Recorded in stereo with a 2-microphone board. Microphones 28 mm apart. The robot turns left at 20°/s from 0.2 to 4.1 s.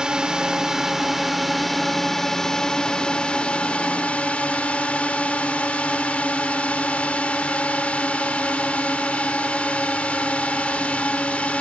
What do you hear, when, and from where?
0.0 s a drone: 150° right; by 11.6 s 130° left